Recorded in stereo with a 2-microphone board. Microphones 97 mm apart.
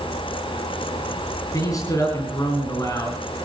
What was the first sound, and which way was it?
A man speaking, 35° left (ahead or behind).